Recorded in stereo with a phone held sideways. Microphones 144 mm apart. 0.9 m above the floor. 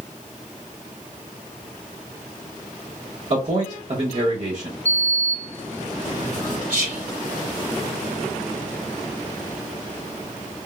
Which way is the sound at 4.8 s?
50° right (ahead or behind).